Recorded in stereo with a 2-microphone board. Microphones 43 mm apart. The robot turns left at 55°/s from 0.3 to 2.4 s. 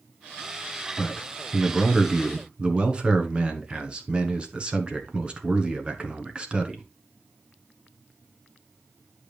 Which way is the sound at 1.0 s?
40° left.